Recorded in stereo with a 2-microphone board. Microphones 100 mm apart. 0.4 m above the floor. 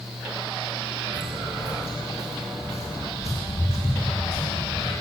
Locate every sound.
1.1 s footsteps: 70° left (ahead or behind), 1.7 m; by 4.9 s 75° left (ahead or behind), 3.5 m